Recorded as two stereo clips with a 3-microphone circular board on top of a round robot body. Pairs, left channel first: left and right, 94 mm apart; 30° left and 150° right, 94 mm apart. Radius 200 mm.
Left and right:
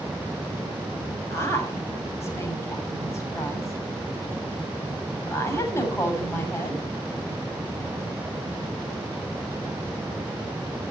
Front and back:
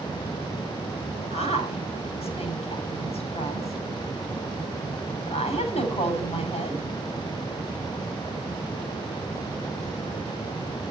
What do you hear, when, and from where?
1.3 s a woman speaking: 30° left, 7 m